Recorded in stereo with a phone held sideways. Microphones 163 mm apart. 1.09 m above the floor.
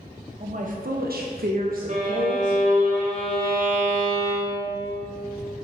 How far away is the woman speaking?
About 1.1 m.